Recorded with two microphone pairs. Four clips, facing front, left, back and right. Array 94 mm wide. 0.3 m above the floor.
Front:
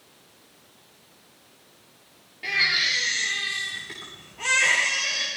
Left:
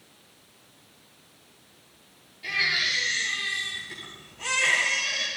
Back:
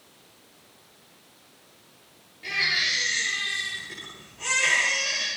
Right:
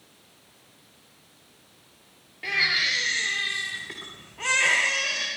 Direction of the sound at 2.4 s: 60° right.